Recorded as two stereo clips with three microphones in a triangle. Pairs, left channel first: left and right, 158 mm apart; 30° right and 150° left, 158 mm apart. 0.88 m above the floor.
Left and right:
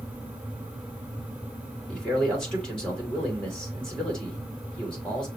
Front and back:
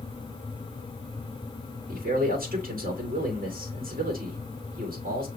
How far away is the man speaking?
About 2 m.